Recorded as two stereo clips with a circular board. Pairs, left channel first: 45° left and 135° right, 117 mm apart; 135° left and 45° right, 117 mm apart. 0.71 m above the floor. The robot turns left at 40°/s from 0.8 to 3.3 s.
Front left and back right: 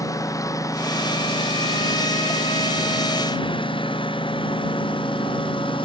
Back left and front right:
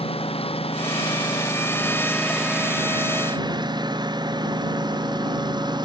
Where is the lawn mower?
105° left; by 5.8 s 5° left.